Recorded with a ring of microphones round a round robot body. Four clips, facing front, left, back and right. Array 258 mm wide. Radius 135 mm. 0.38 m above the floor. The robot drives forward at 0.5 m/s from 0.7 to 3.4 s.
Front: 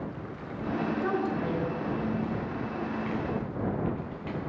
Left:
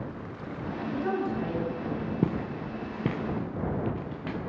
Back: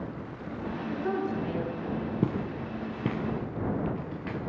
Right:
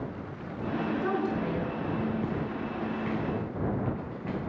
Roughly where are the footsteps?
Behind left.